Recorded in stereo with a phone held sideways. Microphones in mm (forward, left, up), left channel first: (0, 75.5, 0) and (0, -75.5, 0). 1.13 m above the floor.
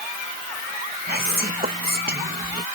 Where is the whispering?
90° right.